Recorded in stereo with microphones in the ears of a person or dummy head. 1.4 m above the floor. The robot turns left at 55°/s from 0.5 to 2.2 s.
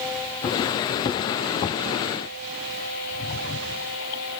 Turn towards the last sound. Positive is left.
No sound to turn to.